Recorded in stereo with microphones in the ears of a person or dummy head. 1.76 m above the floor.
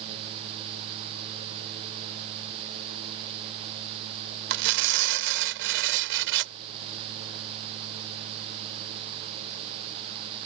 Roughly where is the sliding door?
No sliding door in this recording.